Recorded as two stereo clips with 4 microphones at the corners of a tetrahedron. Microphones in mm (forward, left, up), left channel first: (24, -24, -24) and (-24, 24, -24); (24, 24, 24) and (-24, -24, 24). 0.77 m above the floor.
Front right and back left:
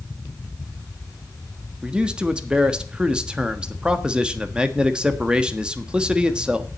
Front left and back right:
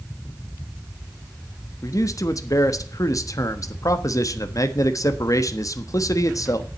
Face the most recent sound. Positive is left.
turn(degrees=60)